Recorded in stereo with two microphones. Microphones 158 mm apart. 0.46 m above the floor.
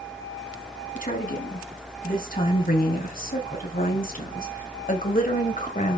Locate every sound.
0.9 s a woman speaking: 65° left (ahead or behind), 4.5 m; by 6.0 s 55° left (ahead or behind), 2.5 m